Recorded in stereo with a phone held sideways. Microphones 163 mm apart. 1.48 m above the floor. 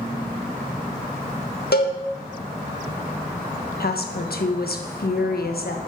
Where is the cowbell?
80° left, 1.6 m.